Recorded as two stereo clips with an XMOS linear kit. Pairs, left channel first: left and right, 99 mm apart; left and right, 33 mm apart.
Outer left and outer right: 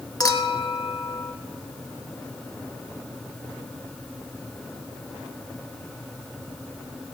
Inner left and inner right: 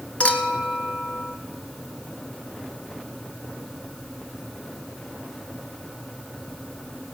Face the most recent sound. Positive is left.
turn(degrees=40)  # may be behind; listen again after turning